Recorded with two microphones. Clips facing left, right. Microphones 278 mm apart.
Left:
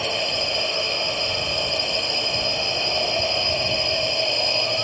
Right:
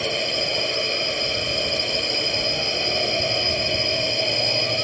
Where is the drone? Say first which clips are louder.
Right 1 dB; 20° right (ahead or behind).